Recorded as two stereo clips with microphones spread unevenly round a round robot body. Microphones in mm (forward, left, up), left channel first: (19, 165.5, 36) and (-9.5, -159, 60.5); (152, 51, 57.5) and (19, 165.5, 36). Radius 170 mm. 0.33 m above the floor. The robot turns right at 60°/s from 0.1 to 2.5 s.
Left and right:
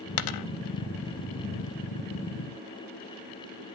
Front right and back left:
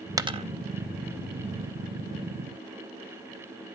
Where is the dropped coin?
70° left, 0.7 m; by 0.4 s 85° left, 0.7 m.